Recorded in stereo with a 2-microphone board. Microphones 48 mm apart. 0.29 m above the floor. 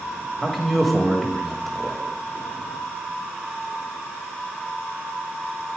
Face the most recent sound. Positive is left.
turn(degrees=0)  # may be behind; listen again after turning